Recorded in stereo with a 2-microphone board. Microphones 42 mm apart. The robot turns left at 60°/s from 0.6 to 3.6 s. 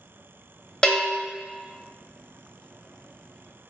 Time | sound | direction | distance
0.8 | a bell | 20° left (ahead or behind) | 0.5 m